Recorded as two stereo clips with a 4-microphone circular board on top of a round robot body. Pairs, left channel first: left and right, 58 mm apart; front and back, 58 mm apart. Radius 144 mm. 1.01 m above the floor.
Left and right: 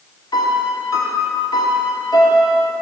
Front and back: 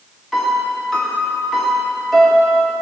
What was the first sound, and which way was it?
A piano, 90° left.